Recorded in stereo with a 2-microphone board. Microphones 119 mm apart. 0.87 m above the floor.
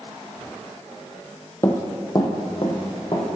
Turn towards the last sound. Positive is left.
turn(degrees=50)  # may be behind; listen again after turning